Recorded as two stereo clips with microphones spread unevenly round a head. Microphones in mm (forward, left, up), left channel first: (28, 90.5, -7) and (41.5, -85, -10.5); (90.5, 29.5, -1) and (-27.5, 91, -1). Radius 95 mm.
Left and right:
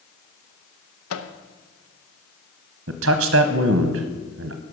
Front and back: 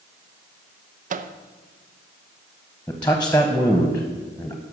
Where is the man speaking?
110° right, 0.7 m.